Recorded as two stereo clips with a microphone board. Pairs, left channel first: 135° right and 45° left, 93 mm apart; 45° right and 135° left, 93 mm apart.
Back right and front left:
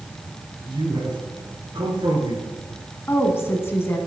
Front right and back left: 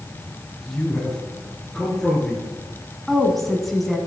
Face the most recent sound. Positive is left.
turn(degrees=-135)